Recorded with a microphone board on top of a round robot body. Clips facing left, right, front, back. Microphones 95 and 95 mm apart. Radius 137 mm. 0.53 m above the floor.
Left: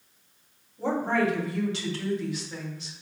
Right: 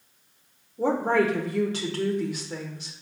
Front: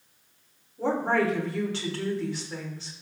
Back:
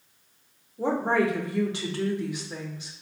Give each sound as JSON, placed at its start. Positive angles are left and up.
{"t": 0.8, "sound": "a woman speaking", "azimuth_deg": -110, "distance_m": 1.0}